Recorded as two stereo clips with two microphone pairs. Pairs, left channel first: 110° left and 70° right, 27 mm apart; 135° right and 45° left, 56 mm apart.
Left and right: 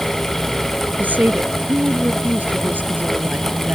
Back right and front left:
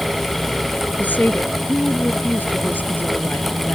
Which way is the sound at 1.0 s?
75° right.